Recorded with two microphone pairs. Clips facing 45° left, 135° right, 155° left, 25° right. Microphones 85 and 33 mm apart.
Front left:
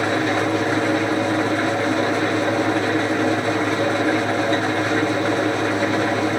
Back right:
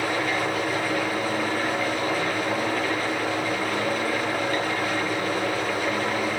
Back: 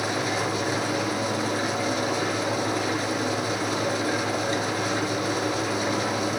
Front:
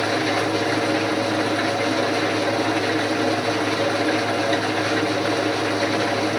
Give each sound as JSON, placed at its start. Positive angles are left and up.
{"t": 0.0, "sound": "an engine running", "azimuth_deg": 40, "distance_m": 5.5}